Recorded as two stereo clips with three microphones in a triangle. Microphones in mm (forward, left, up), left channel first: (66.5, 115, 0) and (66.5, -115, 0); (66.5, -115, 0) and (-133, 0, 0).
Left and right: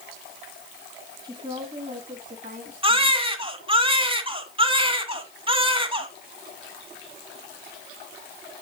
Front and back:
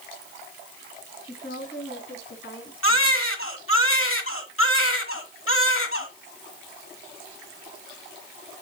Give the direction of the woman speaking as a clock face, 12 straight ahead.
1 o'clock.